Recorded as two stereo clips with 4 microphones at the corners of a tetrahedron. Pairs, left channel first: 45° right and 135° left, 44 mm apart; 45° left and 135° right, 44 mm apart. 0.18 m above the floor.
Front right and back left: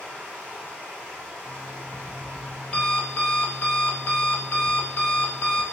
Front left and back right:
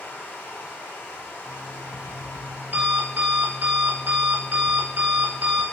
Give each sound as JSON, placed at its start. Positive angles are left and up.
{"t": 0.0, "sound": "running water", "azimuth_deg": 80, "distance_m": 2.5}
{"t": 1.4, "sound": "an alarm clock", "azimuth_deg": -100, "distance_m": 2.0}